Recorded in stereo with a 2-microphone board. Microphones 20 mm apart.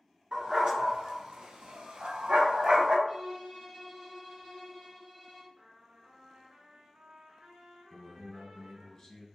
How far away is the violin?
About 1.5 m.